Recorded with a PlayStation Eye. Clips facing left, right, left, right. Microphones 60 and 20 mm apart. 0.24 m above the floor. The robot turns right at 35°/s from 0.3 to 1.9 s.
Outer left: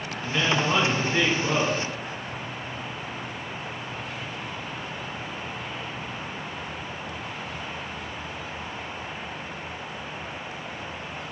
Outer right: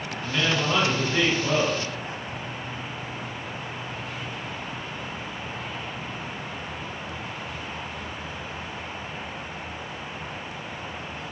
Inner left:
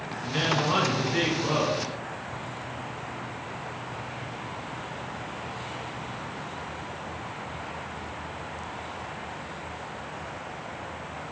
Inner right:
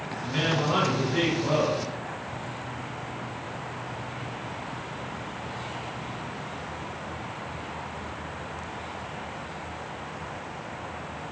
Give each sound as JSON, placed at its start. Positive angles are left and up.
{"t": 0.2, "sound": "a woman speaking", "azimuth_deg": 15, "distance_m": 1.9}